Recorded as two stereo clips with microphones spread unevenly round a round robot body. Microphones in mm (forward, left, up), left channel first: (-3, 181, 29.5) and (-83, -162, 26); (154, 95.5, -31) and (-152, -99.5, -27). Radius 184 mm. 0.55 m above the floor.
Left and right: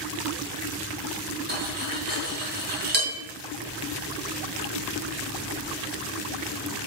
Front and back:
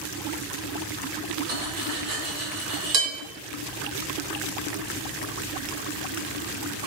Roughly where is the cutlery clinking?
Behind.